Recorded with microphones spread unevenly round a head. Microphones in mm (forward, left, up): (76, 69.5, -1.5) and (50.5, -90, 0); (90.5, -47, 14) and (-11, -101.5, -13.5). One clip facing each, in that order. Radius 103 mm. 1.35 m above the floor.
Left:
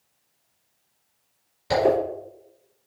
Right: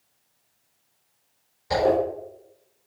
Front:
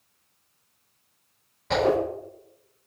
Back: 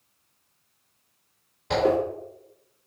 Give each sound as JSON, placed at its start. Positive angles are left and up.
{"t": 1.7, "sound": "a zipper", "azimuth_deg": 125, "distance_m": 3.0}